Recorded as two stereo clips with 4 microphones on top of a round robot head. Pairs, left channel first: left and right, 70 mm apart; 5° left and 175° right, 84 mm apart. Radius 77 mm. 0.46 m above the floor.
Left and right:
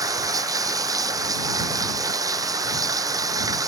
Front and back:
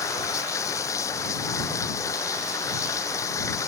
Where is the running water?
55° right.